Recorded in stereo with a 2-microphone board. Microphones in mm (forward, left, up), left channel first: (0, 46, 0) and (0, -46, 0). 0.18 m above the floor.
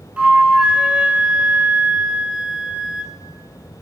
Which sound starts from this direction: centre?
A flute, at 0.2 s.